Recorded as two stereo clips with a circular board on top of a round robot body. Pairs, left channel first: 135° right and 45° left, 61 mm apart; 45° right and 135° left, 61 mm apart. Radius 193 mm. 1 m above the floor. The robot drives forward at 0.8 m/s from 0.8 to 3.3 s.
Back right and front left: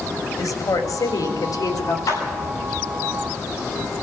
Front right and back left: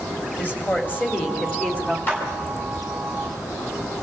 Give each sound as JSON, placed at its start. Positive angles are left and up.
{"t": 0.4, "sound": "a woman speaking", "azimuth_deg": -105, "distance_m": 3.0}
{"t": 2.1, "sound": "a clap", "azimuth_deg": -105, "distance_m": 7.0}